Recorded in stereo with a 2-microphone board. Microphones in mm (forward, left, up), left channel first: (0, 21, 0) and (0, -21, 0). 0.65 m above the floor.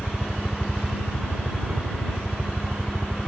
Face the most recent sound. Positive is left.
turn(degrees=-25)  # may be behind; listen again after turning